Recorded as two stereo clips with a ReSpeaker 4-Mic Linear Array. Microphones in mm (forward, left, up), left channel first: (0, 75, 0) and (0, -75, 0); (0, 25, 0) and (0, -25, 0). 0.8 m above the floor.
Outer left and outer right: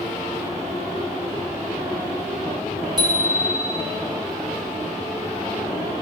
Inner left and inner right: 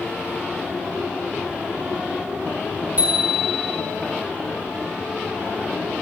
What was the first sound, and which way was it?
A bicycle bell, 30° right (ahead or behind).